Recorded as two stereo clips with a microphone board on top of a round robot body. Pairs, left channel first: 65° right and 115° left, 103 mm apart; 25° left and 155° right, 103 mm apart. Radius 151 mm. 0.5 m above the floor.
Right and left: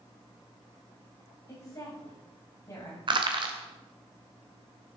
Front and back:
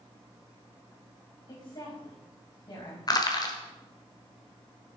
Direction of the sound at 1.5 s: 20° right.